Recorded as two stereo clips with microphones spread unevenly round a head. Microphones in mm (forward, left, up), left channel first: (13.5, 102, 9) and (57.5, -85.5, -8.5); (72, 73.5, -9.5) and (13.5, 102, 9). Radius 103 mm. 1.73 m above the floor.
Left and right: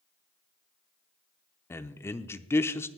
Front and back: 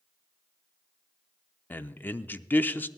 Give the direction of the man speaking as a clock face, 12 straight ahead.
11 o'clock.